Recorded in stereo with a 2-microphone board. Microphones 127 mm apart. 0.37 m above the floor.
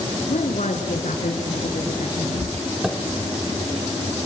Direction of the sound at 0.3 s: 75° left (ahead or behind).